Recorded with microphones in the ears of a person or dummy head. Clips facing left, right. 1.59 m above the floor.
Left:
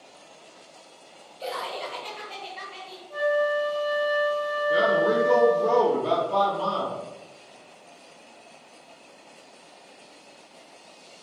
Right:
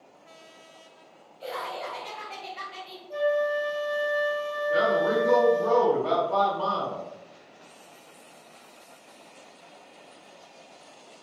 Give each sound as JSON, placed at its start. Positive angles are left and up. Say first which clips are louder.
{"t": 1.4, "sound": "laughter", "louder": "left 2 dB", "side_deg": 65, "distance_m": 1.0}
{"t": 3.1, "sound": "a flute", "louder": "left 1 dB", "side_deg": -30, "distance_m": 1.0}
{"t": 4.7, "sound": "a man speaking", "louder": "left 1 dB", "side_deg": 20, "distance_m": 1.5}